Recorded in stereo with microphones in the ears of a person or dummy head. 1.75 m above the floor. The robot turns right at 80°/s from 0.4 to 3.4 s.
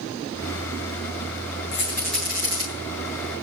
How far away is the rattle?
About 8.5 m.